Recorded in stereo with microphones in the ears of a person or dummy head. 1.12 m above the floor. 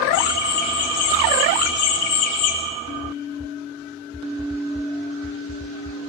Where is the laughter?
60° left (ahead or behind), 3.5 m; by 2.6 s 70° left (ahead or behind), 2.5 m.